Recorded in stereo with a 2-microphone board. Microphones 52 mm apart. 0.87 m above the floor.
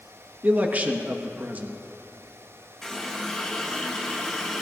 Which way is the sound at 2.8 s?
5° left (ahead or behind).